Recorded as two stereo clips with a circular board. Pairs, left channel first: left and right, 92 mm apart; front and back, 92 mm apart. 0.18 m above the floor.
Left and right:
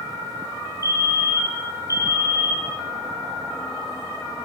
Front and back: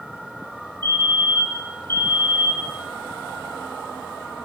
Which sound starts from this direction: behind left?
A fire alarm, at 0.8 s.